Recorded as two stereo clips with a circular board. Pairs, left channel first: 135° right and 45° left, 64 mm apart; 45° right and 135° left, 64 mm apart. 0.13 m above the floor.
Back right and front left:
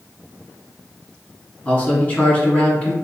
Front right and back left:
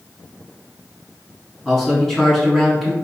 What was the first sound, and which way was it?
A man speaking, 120° right.